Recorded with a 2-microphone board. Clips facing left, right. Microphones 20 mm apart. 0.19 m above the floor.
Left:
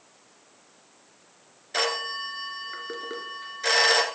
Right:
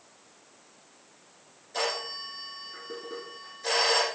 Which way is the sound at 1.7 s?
55° left (ahead or behind).